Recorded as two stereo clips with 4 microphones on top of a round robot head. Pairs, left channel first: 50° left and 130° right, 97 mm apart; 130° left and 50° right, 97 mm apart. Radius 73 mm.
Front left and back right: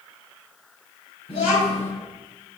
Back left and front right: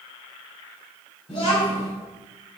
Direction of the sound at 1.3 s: 80° left.